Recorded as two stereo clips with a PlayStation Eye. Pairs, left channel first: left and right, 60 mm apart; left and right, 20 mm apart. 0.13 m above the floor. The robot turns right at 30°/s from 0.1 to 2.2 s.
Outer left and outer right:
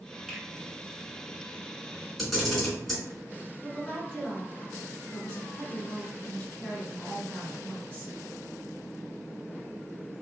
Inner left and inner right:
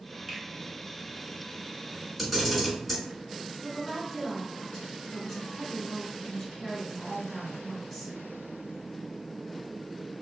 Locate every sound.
0.3 s a finger snap: centre (ahead or behind), 0.9 m; by 0.4 s 5° left (ahead or behind), 0.9 m
2.2 s a camera shutter: 5° left (ahead or behind), 1.5 m
3.6 s a woman speaking: 25° left (ahead or behind), 1.5 m